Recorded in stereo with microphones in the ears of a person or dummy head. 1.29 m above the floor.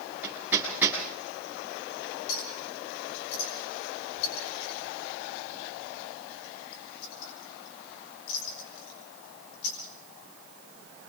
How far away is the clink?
About 7 m.